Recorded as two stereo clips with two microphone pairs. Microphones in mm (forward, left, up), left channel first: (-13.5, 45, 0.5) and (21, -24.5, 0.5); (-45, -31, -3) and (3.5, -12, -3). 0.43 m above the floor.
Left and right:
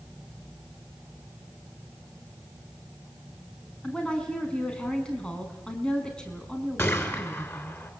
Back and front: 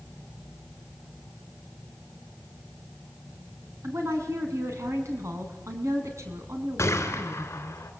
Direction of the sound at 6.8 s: 175° left.